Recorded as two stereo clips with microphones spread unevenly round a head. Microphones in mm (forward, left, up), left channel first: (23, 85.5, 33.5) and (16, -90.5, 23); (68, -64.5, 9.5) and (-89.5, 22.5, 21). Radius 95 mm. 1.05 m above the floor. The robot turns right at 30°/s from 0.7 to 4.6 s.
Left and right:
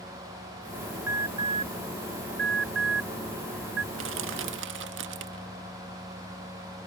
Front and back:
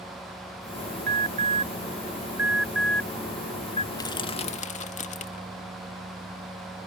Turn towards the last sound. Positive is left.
turn(degrees=-80)